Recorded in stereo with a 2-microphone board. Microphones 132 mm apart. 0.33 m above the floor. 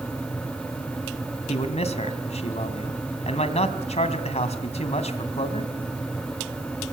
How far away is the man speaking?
About 2.5 m.